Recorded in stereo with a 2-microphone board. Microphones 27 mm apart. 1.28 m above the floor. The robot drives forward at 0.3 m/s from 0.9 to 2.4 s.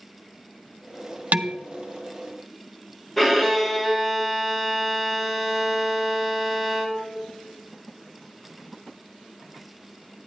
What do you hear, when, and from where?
1.3 s dishes clattering: 70° right (ahead or behind), 0.6 m
3.2 s a violin: 5° left (ahead or behind), 1.2 m